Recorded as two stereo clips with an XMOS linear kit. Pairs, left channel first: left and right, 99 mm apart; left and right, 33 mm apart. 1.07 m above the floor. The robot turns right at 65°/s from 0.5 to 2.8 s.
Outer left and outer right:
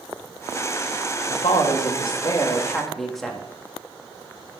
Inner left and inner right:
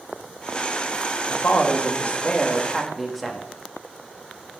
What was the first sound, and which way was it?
A woman speaking, 80° left.